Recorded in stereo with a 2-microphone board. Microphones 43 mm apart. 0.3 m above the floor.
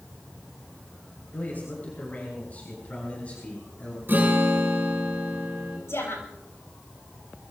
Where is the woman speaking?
75° left (ahead or behind), 7 m.